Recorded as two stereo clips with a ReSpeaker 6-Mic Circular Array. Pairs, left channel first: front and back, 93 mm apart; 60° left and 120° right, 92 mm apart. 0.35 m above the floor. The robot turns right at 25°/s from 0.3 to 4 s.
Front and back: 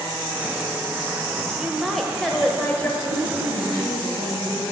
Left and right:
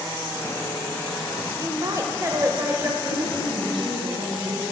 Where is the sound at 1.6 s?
95° right, 1.1 m; by 2.9 s 65° right, 1.1 m.